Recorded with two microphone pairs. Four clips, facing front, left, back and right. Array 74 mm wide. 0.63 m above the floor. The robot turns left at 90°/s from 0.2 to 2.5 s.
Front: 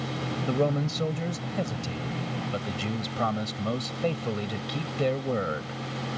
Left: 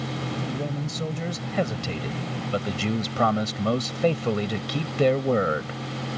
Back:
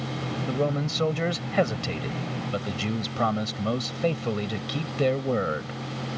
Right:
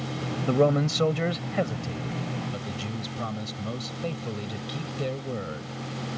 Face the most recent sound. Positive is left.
turn(degrees=100)